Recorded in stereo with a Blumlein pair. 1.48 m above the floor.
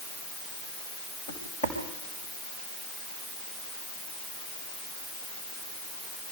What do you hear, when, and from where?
1.3 s footsteps: 60° left, 5.5 m